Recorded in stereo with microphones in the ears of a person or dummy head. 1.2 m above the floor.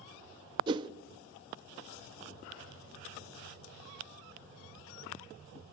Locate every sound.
0.7 s a whoosh: 25° right (ahead or behind), 0.6 m